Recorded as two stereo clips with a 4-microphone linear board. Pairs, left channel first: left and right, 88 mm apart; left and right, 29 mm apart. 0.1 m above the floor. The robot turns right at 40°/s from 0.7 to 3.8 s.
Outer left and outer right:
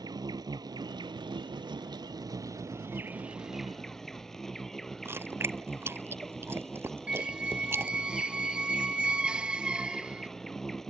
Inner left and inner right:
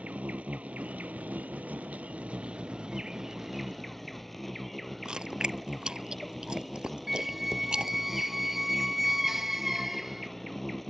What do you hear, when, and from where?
0.0 s an insect: 120° right; by 10.9 s 5° left
5.0 s chewing: 30° right (ahead or behind)
7.1 s a squeak: 10° right (ahead or behind)